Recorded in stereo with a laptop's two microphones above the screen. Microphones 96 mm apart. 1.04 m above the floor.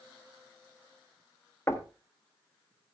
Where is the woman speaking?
No woman speaking in this recording.